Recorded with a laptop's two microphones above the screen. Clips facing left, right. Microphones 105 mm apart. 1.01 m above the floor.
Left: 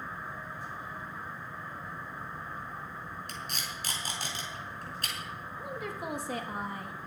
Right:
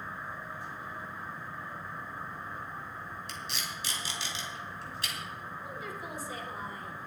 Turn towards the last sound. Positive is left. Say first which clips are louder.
# left 6 dB
turn(degrees=70)  # may be behind; listen again after turning